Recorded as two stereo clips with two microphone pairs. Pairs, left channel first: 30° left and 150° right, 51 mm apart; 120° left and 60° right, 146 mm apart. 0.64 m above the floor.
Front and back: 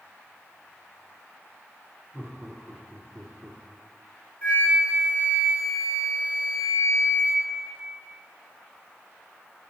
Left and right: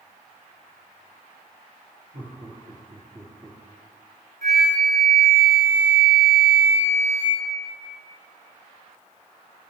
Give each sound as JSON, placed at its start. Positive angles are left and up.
{"t": 2.1, "sound": "laughter", "azimuth_deg": -100, "distance_m": 2.0}
{"t": 4.4, "sound": "a flute", "azimuth_deg": -35, "distance_m": 4.5}